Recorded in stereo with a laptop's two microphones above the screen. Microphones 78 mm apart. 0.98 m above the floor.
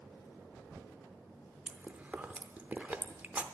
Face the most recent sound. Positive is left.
turn(degrees=-25)  # may be behind; listen again after turning